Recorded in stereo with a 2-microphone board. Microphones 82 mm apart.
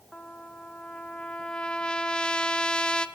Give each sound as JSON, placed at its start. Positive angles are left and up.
{"t": 0.1, "sound": "a trumpet", "side_deg": 10, "distance_m": 0.7}